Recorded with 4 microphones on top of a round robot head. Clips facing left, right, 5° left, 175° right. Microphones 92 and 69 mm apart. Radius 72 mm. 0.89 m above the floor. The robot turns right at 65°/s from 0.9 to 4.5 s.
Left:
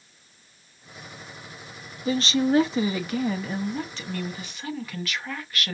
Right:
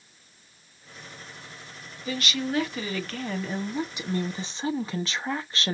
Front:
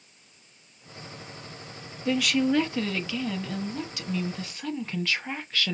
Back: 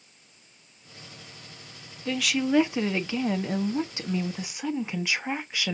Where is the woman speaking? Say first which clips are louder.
Left 7 dB, front 2 dB; 85° left, 0.8 m; by 5.7 s 115° right, 0.8 m.